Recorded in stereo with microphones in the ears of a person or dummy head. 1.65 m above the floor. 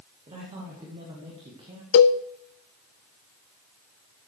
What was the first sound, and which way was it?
A man speaking, 25° right (ahead or behind).